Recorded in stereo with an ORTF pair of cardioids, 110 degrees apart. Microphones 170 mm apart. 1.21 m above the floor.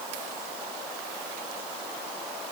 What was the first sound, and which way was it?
Only background noise.